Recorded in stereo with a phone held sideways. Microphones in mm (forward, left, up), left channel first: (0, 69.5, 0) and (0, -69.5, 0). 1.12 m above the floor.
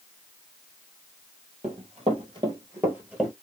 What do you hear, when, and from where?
1.6 s running footsteps: 50° right (ahead or behind), 1.6 m; by 3.3 s centre (ahead or behind), 1.4 m